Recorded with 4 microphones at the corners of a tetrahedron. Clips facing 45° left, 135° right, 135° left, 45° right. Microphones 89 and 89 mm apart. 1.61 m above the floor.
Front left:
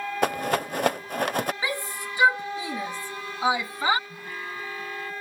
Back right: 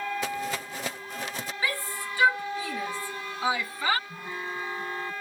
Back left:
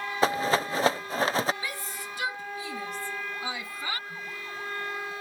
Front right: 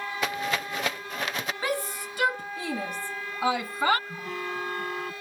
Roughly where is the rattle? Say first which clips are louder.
Front left 7 dB, back left 6 dB; left.